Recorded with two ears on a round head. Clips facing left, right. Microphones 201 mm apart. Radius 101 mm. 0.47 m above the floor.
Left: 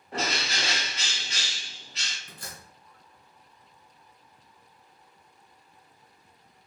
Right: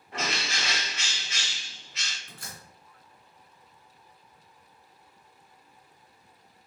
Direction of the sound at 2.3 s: 30° left (ahead or behind).